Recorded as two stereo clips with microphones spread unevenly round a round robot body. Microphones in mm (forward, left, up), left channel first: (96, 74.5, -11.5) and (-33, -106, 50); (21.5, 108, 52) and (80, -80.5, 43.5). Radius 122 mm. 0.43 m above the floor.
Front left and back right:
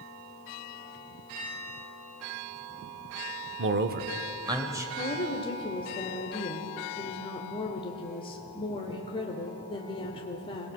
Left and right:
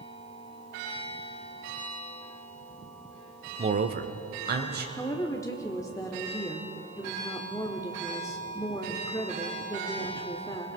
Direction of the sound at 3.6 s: 110° right.